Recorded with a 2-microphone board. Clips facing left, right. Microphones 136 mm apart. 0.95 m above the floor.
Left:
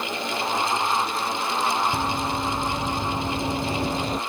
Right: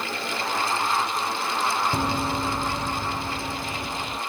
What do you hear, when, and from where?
1.9 s running footsteps: 20° right (ahead or behind); by 4.2 s 45° left (ahead or behind)